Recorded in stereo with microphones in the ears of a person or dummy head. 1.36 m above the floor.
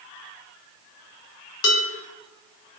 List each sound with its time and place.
1.6 s dishes clattering: 85° left, 4.5 m